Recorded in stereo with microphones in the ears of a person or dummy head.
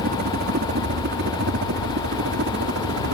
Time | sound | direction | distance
0.0 | a helicopter | 55° right (ahead or behind) | ?